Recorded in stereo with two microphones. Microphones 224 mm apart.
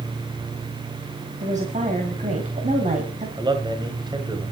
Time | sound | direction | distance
1.4 | a woman speaking | 35° right (ahead or behind) | 2 m
3.4 | a man speaking | 20° right (ahead or behind) | 1.2 m